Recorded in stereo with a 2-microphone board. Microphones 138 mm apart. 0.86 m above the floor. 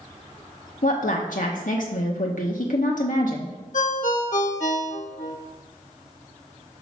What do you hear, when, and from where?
0.8 s a woman speaking: 70° left (ahead or behind), 0.9 m
3.7 s a ringtone: 65° left (ahead or behind), 0.7 m